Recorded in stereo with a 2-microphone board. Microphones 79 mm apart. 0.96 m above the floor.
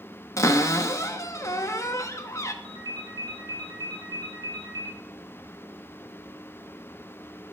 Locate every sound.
0.4 s a cupboard door: 40° left (ahead or behind), 0.7 m
2.6 s a ringtone: 60° right (ahead or behind), 1.5 m